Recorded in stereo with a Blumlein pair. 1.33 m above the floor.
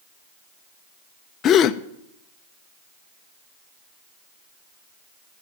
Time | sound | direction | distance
1.4 | a gasp | 30° left | 0.6 m